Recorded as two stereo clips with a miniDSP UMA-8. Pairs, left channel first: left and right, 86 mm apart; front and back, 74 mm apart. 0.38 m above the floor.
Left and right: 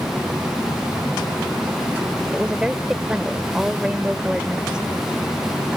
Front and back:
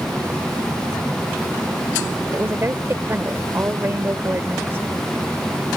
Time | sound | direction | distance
2.3 | a woman speaking | 160° right | ?